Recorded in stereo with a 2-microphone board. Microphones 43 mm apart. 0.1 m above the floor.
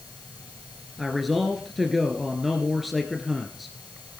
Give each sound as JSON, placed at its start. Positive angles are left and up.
{"t": 1.0, "sound": "a man speaking", "side_deg": 0, "distance_m": 1.7}